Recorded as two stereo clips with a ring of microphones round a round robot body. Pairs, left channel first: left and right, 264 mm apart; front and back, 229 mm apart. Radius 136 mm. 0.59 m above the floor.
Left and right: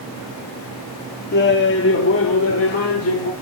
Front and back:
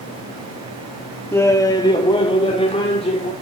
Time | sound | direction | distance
1.3 | laughter | 75° left | 1.0 m